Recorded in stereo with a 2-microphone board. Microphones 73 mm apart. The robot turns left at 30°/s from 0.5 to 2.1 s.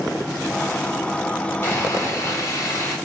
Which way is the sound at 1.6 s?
30° left (ahead or behind).